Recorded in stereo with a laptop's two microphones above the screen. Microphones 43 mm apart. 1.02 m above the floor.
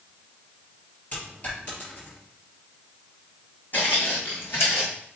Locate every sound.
1.1 s a dropped coin: 40° left (ahead or behind), 3.5 m
3.7 s footsteps: 50° left (ahead or behind), 2.5 m; by 4.9 s 65° left (ahead or behind), 2.5 m